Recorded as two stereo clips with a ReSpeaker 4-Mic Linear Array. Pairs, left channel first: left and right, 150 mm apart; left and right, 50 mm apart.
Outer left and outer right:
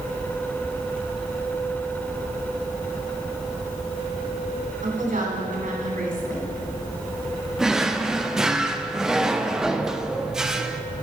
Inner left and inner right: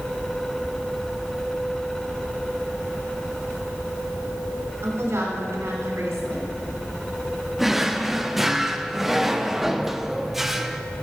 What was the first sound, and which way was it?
A woman speaking, 70° right (ahead or behind).